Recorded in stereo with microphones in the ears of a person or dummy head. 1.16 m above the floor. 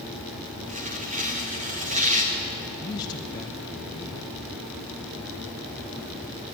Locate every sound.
0.7 s tearing paper: 40° right (ahead or behind), 1.4 m
2.8 s a man speaking: 15° left (ahead or behind), 0.7 m